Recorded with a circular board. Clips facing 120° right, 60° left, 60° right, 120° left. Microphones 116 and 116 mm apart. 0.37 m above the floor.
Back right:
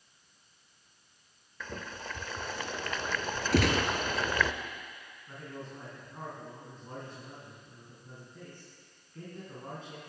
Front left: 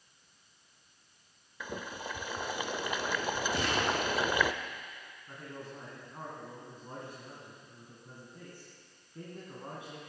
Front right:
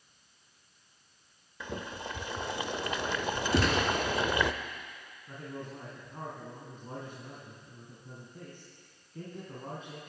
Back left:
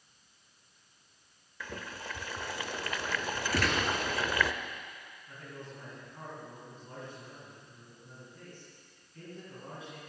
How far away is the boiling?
About 0.6 m.